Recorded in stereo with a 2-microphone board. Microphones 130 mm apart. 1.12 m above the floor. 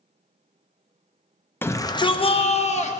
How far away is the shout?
About 0.5 m.